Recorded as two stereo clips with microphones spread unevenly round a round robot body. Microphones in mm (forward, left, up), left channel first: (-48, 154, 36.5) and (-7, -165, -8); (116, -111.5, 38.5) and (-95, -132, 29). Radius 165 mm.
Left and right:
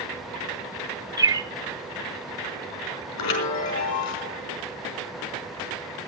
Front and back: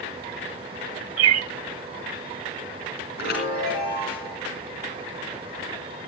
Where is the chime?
65° left, 4.5 m.